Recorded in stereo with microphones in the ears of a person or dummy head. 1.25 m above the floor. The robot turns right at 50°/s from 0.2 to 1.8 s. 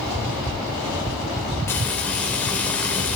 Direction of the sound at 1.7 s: 15° left (ahead or behind).